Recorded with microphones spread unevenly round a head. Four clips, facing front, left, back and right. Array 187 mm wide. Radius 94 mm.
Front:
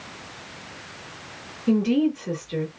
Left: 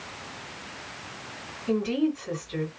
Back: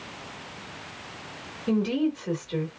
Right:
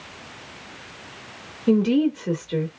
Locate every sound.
1.7 s a woman speaking: 85° right, 1.6 m